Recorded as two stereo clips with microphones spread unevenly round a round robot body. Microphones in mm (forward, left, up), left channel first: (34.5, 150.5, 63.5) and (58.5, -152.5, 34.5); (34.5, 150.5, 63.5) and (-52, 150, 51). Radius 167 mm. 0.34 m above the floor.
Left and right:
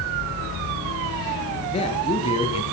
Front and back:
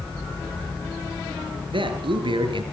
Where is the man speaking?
165° left, 6 m.